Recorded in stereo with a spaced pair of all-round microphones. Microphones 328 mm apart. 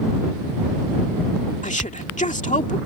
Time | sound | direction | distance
1.6 | a woman speaking | 20° left (ahead or behind) | ?